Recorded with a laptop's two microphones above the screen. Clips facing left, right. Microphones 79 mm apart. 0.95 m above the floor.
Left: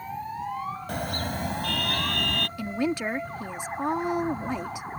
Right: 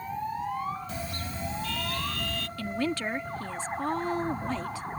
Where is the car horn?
60° left (ahead or behind); by 2.5 s 65° left (ahead or behind).